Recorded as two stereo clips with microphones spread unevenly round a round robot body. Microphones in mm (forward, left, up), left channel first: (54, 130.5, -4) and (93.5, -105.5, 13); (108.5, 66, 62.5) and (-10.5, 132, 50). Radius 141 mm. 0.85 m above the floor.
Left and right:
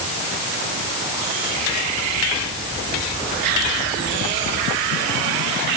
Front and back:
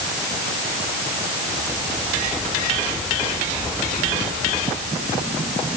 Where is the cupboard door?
No cupboard door in this recording.